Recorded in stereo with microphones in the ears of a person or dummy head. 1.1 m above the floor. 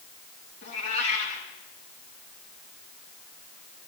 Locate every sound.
0.6 s a cat meowing: 45° left (ahead or behind), 3 m